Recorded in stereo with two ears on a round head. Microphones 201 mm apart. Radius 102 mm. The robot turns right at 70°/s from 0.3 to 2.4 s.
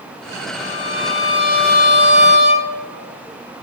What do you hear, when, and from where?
0.6 s a violin: 25° left (ahead or behind), 1.3 m; by 2.7 s 20° right (ahead or behind), 1.3 m